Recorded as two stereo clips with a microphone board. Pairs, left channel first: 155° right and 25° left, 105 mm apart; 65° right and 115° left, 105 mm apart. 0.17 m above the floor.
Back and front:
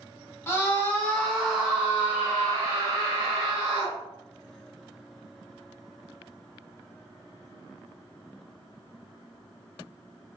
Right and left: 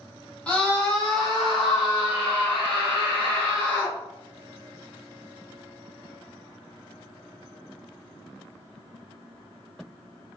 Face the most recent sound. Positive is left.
turn(degrees=45)